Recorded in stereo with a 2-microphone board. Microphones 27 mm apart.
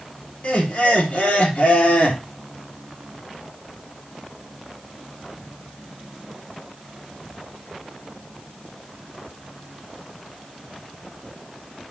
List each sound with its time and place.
0.4 s laughter: 65° left (ahead or behind), 3 m